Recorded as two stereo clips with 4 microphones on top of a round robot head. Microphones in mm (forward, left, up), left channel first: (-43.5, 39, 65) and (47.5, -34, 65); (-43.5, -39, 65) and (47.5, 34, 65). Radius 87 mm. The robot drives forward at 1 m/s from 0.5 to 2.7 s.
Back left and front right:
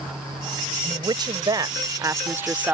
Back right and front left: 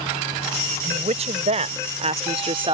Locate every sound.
0.8 s a woman speaking: 10° left; by 2.8 s 40° left